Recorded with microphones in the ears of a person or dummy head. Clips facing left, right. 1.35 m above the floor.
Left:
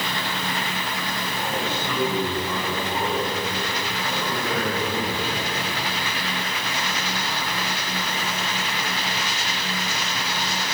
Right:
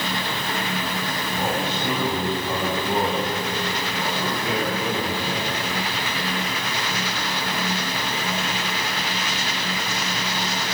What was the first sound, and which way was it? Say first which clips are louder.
A man speaking: right 3 dB; 35° right (ahead or behind).